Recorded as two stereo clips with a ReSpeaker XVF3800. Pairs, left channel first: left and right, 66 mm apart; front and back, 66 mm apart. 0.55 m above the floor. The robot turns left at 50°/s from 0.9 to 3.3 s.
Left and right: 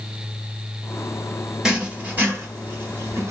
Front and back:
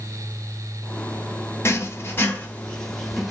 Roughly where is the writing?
Ahead.